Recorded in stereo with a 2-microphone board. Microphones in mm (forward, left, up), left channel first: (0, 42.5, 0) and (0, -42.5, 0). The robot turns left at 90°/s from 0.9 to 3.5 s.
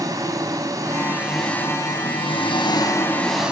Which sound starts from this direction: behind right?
An engine running, at 0.0 s.